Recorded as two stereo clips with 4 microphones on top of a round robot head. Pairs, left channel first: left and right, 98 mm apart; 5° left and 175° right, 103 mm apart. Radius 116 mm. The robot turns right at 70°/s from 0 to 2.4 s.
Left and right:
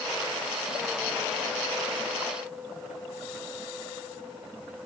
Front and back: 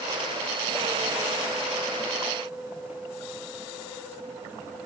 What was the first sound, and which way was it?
Only background noise.